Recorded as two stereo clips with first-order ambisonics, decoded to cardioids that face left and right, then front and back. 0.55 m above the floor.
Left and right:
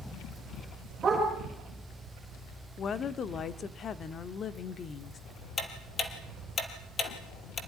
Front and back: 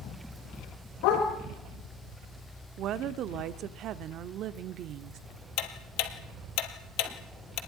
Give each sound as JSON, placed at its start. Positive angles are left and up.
{"t": 1.0, "sound": "a dog barking", "azimuth_deg": -15, "distance_m": 10.0}
{"t": 2.8, "sound": "a woman speaking", "azimuth_deg": 145, "distance_m": 1.1}
{"t": 5.6, "sound": "ticking", "azimuth_deg": 20, "distance_m": 2.5}